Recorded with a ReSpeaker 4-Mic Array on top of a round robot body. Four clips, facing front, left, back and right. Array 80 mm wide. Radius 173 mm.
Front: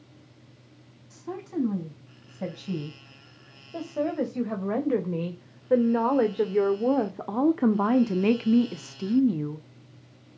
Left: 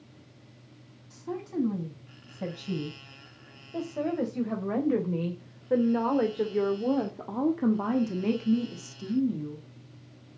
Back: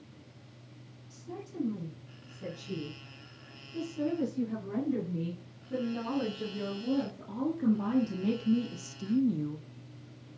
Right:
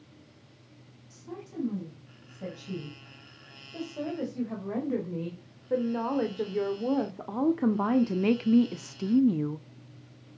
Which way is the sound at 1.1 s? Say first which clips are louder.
Left 7 dB, front 10 dB; 30° left.